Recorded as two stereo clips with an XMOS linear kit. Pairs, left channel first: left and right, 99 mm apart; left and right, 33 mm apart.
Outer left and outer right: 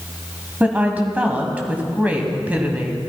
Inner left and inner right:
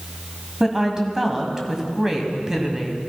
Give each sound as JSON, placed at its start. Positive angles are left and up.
{"t": 0.6, "sound": "a woman speaking", "side_deg": -15, "distance_m": 1.6}